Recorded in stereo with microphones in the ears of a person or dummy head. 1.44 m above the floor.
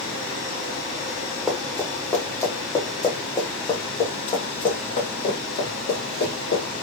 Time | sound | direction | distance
1.5 | running footsteps | centre (ahead or behind) | 2 m